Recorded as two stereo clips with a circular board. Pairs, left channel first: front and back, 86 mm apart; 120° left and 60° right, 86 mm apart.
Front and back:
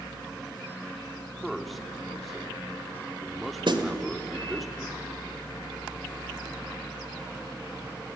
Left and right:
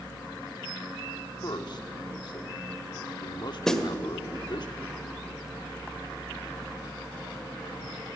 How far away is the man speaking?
About 1.6 m.